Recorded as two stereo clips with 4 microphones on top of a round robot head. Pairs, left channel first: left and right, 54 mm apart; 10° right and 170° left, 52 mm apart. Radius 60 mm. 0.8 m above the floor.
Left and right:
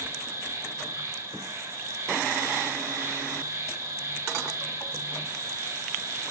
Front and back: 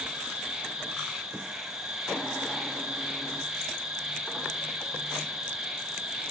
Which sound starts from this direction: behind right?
An insect, at 0.0 s.